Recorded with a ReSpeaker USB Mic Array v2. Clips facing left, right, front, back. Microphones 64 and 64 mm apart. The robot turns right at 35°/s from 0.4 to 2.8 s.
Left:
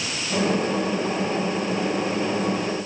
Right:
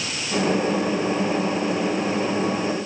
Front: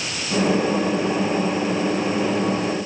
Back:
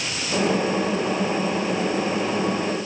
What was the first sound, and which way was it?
Only background noise.